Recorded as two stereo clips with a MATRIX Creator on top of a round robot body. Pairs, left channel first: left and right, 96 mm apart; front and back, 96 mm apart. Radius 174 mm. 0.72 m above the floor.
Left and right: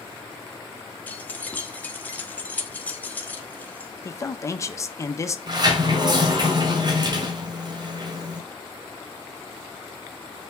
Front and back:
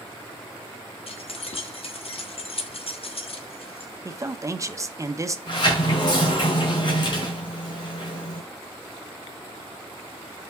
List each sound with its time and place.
1.1 s keys jangling: 15° left, 1.3 m
4.0 s a man speaking: 135° left, 1.1 m
5.5 s a sliding door: 45° right, 1.9 m